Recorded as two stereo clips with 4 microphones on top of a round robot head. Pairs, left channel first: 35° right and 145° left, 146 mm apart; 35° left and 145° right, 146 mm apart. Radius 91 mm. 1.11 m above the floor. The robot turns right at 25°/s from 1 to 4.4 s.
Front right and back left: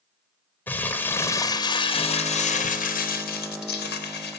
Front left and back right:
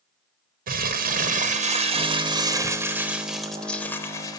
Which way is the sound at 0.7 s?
115° right.